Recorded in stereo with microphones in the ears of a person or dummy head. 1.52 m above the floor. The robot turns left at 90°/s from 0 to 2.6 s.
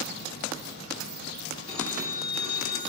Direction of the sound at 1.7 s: Straight behind.